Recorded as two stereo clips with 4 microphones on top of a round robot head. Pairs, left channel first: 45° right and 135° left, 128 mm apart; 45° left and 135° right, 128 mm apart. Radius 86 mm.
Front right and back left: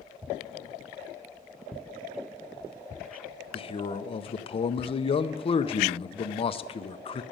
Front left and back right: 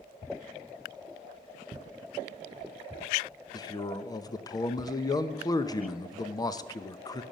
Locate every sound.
3.5 s a man speaking: 10° right, 0.5 m